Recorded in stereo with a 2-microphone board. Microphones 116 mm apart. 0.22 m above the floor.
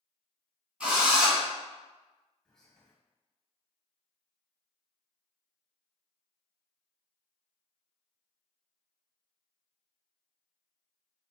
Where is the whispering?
5° left (ahead or behind), 1.1 m.